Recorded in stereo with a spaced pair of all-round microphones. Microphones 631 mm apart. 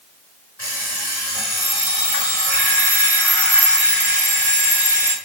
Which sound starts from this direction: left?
An alarm clock, at 0.6 s.